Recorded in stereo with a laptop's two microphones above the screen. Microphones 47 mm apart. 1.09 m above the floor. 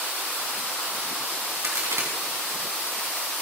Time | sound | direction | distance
1.6 | a crack | 75° right (ahead or behind) | 3.5 m